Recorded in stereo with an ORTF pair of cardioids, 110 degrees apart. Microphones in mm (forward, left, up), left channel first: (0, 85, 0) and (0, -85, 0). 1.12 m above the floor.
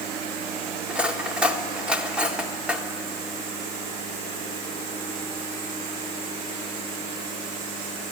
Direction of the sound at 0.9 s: 5° right.